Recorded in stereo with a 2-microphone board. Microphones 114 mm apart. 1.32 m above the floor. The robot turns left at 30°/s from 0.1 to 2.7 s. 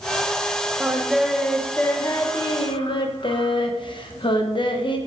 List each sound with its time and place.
0.8 s singing: 165° right, 0.9 m; by 5.0 s 140° left, 0.9 m